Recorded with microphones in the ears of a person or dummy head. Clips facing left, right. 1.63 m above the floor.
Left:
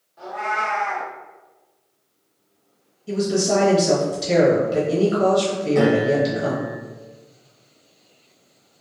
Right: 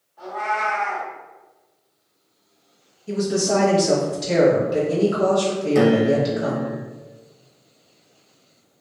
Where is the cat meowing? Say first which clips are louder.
Right 1 dB; 20° left (ahead or behind), 0.9 m.